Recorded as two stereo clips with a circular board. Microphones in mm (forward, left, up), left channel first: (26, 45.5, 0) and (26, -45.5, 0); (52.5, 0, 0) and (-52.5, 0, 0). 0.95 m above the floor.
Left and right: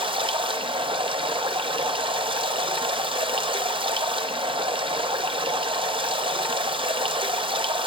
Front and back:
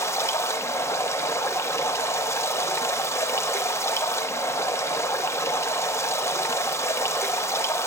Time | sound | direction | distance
0.0 | running water | 65° right | 0.8 m